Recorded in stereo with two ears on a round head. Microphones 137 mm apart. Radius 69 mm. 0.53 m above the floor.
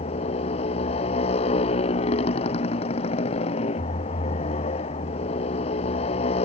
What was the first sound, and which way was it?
A motorcycle, 45° left (ahead or behind).